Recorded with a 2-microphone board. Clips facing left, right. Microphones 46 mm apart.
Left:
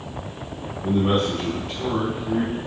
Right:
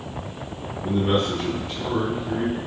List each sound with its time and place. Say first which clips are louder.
0.8 s a man speaking: left 1 dB; 40° left (ahead or behind), 1.8 m